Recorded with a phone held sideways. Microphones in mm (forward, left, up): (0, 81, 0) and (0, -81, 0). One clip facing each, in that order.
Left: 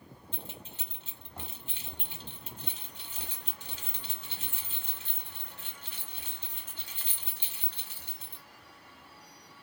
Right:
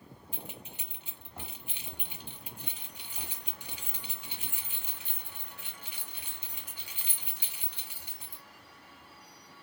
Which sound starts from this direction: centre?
Keys jangling, at 0.3 s.